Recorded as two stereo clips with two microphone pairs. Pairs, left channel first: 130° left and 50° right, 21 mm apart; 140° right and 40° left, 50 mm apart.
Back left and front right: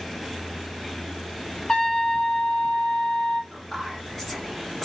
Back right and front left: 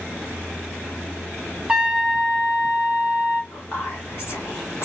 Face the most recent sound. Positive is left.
turn(degrees=-160)